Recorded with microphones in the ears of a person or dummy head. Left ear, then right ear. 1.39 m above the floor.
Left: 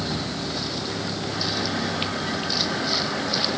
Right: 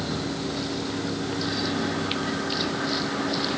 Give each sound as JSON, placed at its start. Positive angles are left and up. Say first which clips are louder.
{"t": 0.0, "sound": "a vehicle", "louder": "left 1 dB", "side_deg": 15}